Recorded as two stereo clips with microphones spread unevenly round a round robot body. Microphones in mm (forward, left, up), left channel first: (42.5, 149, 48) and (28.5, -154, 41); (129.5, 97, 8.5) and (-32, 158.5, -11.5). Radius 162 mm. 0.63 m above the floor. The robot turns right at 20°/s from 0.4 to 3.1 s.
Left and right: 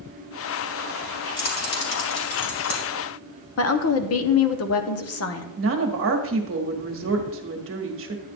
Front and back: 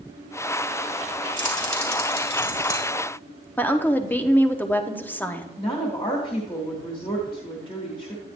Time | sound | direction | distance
1.4 | keys jangling | 25° left | 2.5 m
3.6 | a woman speaking | 60° left | 1.0 m
5.6 | a woman speaking | 85° right | 1.5 m